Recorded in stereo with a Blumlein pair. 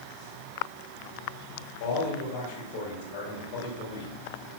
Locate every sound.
1.8 s a man speaking: 50° left, 4 m